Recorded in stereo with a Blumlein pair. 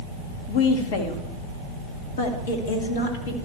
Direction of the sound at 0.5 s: 50° left.